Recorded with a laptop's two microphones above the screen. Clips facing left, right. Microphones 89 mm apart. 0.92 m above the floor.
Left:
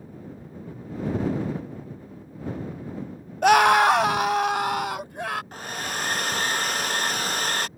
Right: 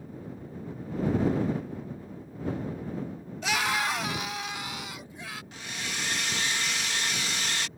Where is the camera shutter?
No camera shutter in this recording.